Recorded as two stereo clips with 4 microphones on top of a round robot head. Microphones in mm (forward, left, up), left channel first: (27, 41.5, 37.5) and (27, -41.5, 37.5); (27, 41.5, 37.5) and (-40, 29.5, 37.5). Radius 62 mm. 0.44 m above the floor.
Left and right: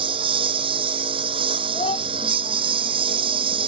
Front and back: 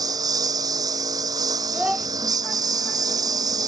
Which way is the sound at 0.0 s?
120° right.